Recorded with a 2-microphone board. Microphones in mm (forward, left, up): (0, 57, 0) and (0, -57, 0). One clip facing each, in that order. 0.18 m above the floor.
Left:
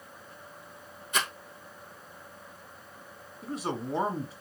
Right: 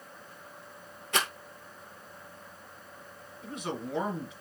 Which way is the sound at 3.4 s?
35° left (ahead or behind).